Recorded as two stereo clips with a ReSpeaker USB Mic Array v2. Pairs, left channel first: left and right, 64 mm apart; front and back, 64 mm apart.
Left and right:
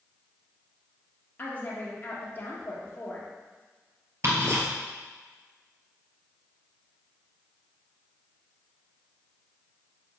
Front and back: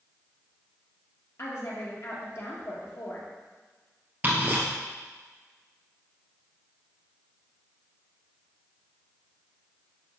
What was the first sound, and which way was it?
A woman speaking, 35° left.